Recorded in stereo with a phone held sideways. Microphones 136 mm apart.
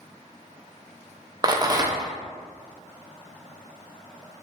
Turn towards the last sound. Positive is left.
turn(degrees=-30)  # may be behind; listen again after turning